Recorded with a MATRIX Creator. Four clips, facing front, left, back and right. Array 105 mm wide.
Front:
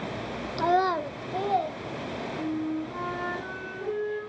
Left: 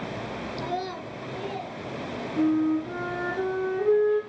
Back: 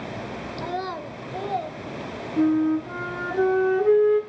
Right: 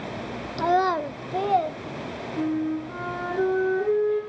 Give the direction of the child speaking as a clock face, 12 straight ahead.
2 o'clock.